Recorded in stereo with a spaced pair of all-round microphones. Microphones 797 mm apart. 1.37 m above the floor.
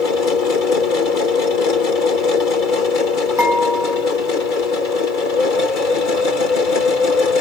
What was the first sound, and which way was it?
A machine running, 80° left.